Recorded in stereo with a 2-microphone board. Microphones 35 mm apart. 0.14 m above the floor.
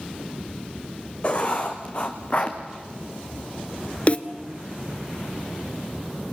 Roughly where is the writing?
Left.